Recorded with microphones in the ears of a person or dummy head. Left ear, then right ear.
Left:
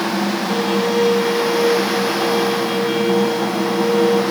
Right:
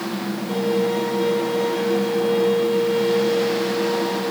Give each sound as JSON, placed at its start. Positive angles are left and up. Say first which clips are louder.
{"t": 0.5, "sound": "a violin", "louder": "left 1 dB", "side_deg": 25, "distance_m": 7.0}